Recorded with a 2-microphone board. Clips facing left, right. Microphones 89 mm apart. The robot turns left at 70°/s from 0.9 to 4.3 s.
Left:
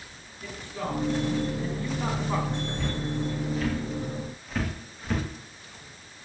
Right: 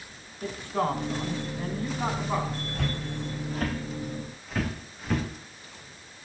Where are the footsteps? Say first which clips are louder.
Left 2 dB; 65° right (ahead or behind), 8.5 m; by 5.2 s 5° right (ahead or behind), 7 m.